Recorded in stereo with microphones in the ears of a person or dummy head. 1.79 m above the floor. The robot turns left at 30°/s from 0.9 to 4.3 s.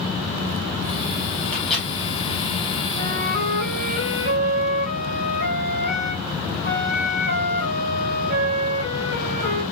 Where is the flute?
70° right, 3 m; by 9.6 s 115° right, 3 m.